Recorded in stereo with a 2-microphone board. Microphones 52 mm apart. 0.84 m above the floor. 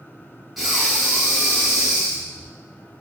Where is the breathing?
5° right (ahead or behind), 0.9 m.